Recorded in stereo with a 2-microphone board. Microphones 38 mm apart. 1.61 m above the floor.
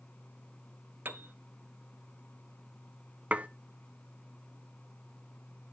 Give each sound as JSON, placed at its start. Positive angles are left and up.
{"t": 1.1, "sound": "a piano", "side_deg": -60, "distance_m": 0.8}
{"t": 3.3, "sound": "dishes clattering", "side_deg": -35, "distance_m": 0.7}